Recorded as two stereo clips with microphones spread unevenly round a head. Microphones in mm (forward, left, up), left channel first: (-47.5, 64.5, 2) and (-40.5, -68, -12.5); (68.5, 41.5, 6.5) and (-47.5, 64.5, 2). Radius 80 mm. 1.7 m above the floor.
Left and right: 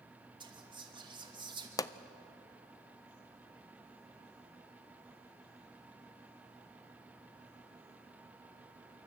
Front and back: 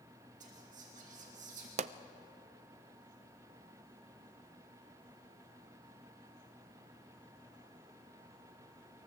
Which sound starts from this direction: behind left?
A pop, at 1.8 s.